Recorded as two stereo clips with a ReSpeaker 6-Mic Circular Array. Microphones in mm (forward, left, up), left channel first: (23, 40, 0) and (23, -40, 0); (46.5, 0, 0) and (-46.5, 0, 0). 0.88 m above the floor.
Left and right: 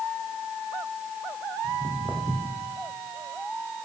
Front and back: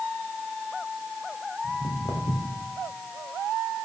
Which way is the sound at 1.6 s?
5° left.